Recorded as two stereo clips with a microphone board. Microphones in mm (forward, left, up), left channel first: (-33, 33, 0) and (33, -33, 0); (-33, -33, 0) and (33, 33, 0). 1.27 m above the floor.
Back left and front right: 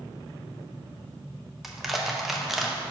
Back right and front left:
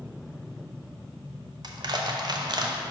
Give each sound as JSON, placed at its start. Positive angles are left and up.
{"t": 1.6, "sound": "crushing", "azimuth_deg": 40, "distance_m": 0.6}